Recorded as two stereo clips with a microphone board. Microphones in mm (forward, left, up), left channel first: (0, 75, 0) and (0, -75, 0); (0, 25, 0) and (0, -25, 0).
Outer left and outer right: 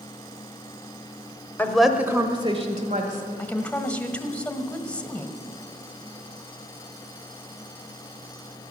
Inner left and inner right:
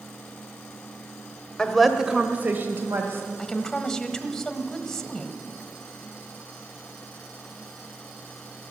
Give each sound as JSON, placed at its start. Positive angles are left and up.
{"t": 1.6, "sound": "a woman speaking", "side_deg": 10, "distance_m": 1.2}
{"t": 3.4, "sound": "a woman speaking", "side_deg": 10, "distance_m": 1.3}